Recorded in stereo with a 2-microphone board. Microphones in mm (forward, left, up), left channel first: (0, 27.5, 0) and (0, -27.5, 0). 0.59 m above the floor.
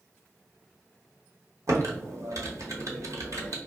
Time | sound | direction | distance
1.7 | typing on a keyboard | 65° right (ahead or behind) | 0.9 m